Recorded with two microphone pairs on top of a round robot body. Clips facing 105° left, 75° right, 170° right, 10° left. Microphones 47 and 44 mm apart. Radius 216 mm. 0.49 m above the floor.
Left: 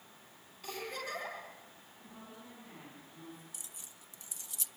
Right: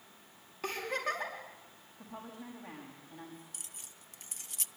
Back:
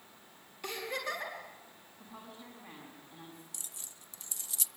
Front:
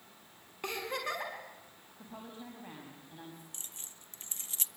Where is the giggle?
45° right, 6 m.